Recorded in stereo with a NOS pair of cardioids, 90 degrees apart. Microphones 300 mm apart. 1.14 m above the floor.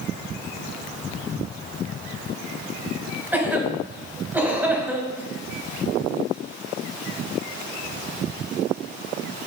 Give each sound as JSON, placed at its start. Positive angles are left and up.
{"t": 3.3, "sound": "a cough", "azimuth_deg": -5, "distance_m": 4.5}